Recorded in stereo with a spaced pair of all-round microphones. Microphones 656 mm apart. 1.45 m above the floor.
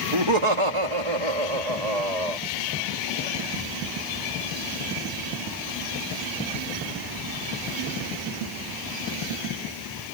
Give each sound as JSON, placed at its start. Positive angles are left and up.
{"t": 0.1, "sound": "laughter", "side_deg": -40}